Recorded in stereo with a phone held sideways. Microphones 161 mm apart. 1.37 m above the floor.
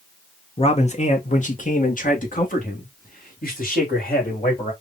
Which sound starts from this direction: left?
A man speaking, at 0.6 s.